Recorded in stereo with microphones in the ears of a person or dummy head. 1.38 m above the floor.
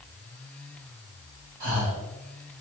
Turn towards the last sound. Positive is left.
turn(degrees=-60)  # may be behind; listen again after turning